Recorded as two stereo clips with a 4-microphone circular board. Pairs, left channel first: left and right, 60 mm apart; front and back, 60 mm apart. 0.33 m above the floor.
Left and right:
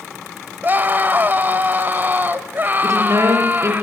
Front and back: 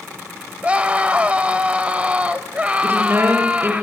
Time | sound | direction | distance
0.6 | a scream | 125° right | 1.6 m
2.8 | a woman speaking | 125° right | 6.5 m